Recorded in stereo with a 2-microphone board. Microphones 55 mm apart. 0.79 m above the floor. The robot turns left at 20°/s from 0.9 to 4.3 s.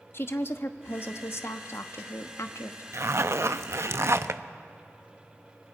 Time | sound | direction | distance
0.1 | a woman speaking | 115° left | 1.0 m
2.9 | a zipper | 55° right (ahead or behind) | 0.5 m